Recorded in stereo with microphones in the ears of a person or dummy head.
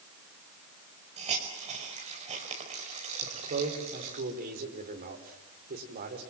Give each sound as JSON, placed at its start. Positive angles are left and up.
{"t": 1.2, "sound": "a hiss", "side_deg": -30, "distance_m": 5.0}
{"t": 3.2, "sound": "a man speaking", "side_deg": -45, "distance_m": 5.0}